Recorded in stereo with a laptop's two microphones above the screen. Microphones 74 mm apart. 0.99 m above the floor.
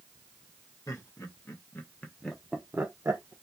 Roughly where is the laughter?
Left.